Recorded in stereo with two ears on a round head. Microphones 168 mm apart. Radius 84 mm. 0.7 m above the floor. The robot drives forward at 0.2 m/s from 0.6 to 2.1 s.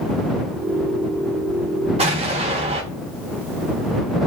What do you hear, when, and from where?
2.0 s an explosion: 30° right (ahead or behind), 0.8 m